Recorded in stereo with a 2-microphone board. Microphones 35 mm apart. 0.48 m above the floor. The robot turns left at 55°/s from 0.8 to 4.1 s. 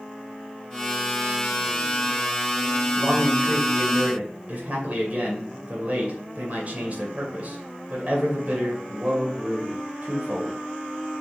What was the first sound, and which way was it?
A man speaking, 60° right.